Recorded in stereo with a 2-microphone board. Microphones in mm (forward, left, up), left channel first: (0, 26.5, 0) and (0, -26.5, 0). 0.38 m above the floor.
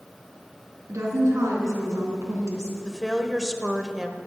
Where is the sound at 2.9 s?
10° right (ahead or behind), 1.1 m.